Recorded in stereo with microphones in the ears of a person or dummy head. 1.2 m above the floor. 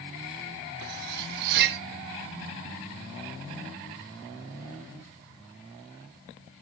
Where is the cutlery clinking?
55° right (ahead or behind), 1.0 m.